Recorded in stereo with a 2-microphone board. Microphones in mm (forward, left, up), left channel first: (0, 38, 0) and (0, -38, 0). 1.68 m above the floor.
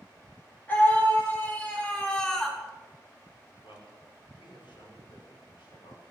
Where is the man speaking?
85° left, 6 m.